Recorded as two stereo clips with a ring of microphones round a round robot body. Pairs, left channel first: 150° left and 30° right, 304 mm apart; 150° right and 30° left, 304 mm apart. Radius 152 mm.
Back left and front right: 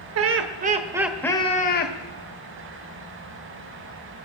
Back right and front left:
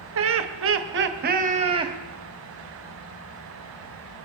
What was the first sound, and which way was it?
Laughter, 5° right.